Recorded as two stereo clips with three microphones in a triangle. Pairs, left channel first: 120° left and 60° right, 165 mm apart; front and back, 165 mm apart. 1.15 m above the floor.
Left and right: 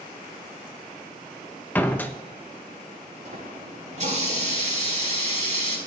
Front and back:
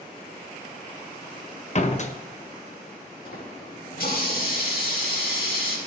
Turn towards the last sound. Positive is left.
turn(degrees=-20)